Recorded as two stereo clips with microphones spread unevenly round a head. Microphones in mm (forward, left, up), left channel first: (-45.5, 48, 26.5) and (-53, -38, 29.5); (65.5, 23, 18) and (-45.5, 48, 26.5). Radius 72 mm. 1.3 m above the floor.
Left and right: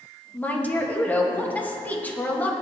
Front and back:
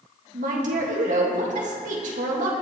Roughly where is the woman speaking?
Behind left.